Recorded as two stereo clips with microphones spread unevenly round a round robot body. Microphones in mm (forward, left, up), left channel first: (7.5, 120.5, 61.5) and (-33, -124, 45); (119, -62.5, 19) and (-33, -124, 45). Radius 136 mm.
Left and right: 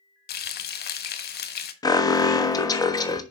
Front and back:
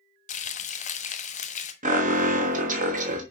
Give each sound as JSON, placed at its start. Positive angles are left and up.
{"t": 0.3, "sound": "frying", "azimuth_deg": 35, "distance_m": 1.4}
{"t": 1.8, "sound": "an alarm", "azimuth_deg": 155, "distance_m": 1.3}